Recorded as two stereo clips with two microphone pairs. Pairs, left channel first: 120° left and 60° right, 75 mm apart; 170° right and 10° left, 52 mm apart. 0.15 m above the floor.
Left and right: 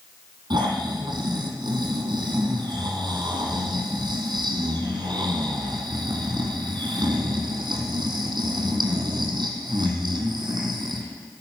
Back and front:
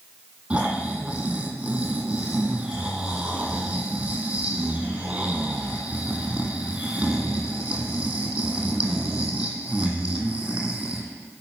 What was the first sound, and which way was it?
Snoring, 60° right.